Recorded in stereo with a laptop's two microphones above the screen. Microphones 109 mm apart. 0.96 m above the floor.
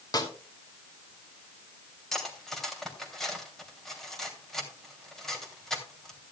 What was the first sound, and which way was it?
A snare drum, 40° left (ahead or behind).